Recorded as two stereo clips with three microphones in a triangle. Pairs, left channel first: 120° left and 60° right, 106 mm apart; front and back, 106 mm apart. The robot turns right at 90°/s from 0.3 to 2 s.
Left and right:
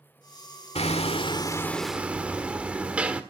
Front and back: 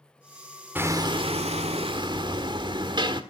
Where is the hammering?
110° left, 1.6 m; by 3.2 s 140° right, 1.6 m.